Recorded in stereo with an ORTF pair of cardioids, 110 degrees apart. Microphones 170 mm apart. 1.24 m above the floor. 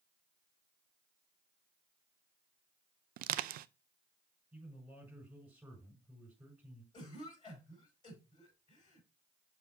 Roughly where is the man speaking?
Ahead.